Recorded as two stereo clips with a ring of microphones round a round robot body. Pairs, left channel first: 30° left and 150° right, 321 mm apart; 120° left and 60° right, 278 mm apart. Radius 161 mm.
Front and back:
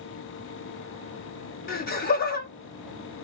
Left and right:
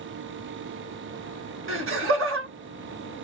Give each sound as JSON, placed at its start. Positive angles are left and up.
{"t": 1.7, "sound": "laughter", "azimuth_deg": -30, "distance_m": 1.5}